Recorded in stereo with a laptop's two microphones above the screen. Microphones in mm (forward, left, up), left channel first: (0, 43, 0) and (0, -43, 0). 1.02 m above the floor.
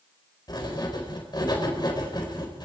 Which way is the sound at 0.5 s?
55° left (ahead or behind).